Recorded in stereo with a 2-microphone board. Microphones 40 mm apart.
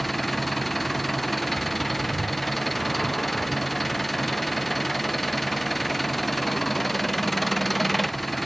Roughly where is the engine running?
Centre.